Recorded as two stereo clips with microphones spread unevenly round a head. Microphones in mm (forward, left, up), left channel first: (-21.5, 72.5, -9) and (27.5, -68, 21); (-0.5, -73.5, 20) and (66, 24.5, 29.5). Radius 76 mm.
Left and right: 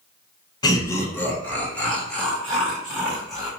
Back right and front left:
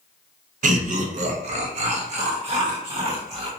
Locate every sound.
0.6 s laughter: 50° left, 0.7 m; by 3.5 s 20° left, 2.5 m